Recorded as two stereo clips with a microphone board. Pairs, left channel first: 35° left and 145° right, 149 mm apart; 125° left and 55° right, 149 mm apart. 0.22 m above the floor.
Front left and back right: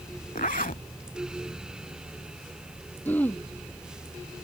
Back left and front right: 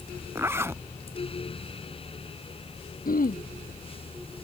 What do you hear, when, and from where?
0.3 s a zipper: 15° left
3.0 s throat clearing: 110° left